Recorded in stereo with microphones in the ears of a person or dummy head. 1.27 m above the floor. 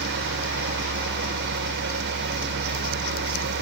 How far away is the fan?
About 1.0 m.